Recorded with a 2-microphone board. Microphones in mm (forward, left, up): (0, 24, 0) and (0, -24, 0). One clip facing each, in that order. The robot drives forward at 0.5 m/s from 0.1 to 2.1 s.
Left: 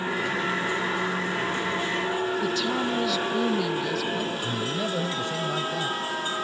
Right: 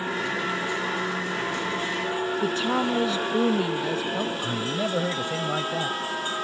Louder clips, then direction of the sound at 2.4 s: Right 2 dB; 30° right (ahead or behind).